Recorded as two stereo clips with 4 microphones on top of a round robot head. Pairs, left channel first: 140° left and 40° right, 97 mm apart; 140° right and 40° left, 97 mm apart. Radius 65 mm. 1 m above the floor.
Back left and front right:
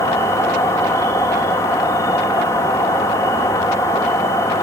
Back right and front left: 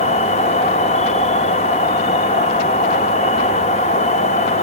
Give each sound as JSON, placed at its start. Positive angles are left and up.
{"t": 0.0, "sound": "an insect", "azimuth_deg": -160, "distance_m": 1.2}